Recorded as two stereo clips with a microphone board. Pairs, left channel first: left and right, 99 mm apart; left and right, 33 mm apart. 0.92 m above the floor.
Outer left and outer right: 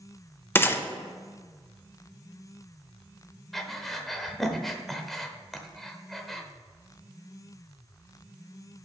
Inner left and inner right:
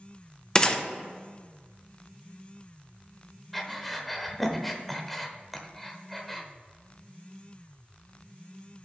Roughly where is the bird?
I don't hear a bird.